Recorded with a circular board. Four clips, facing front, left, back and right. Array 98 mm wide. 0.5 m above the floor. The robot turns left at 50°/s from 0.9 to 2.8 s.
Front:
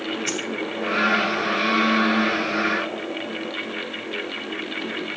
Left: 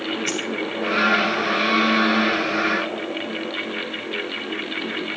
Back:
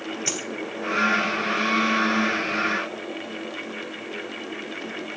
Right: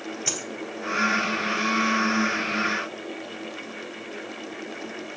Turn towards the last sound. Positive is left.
turn(degrees=130)